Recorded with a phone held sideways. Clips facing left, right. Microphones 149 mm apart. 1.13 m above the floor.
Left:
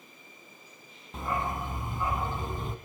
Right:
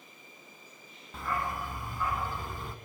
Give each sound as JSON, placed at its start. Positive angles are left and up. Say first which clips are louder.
{"t": 1.1, "sound": "a dog barking", "louder": "left 2 dB", "side_deg": 20, "distance_m": 2.5}